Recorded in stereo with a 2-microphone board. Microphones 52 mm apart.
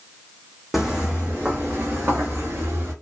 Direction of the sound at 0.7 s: 5° right (ahead or behind).